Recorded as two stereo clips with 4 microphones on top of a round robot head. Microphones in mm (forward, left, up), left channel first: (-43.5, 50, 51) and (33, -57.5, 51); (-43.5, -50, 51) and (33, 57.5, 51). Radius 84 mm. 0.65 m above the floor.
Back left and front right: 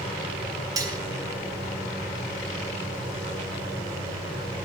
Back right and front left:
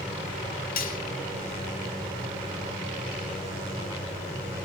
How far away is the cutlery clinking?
About 1.7 m.